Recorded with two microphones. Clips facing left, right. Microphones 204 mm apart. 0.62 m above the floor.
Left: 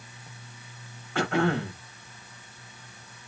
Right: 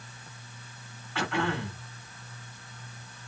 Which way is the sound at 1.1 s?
45° left (ahead or behind).